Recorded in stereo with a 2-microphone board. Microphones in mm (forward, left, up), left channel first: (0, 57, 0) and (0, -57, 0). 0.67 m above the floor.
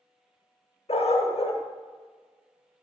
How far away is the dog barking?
About 0.7 m.